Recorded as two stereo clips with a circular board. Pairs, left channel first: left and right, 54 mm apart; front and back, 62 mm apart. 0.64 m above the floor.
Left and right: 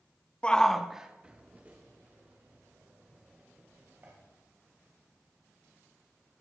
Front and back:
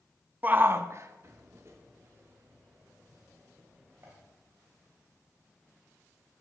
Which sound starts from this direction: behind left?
A shout, at 0.4 s.